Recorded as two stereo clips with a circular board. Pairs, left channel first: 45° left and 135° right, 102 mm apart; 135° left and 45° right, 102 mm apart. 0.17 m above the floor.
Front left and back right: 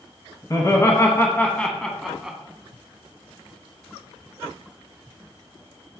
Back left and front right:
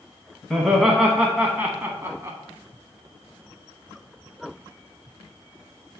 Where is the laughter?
45° left, 1.2 m; by 2.4 s 65° right, 1.1 m.